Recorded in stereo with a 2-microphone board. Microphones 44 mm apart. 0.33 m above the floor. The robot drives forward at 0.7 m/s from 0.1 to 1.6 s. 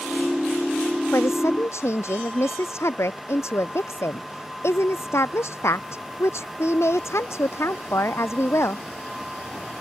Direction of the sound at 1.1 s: 85° left.